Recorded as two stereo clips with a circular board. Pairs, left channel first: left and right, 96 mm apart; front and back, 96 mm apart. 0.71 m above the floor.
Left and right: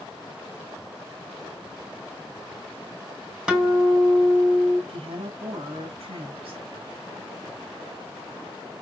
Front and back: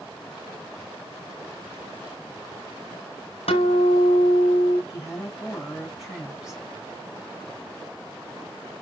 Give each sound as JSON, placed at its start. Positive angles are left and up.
{"t": 3.5, "sound": "a guitar", "azimuth_deg": -10, "distance_m": 2.5}
{"t": 4.9, "sound": "a woman speaking", "azimuth_deg": -95, "distance_m": 5.0}